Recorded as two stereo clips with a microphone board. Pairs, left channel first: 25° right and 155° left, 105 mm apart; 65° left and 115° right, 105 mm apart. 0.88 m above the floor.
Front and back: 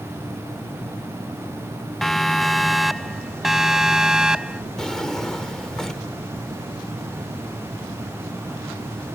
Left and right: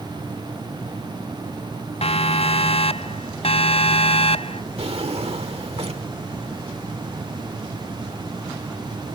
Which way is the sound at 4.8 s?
110° right.